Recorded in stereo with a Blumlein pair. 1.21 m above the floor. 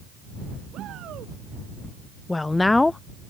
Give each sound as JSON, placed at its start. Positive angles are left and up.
{"t": 0.7, "sound": "a shout", "azimuth_deg": -30}
{"t": 2.3, "sound": "a woman speaking", "azimuth_deg": 10}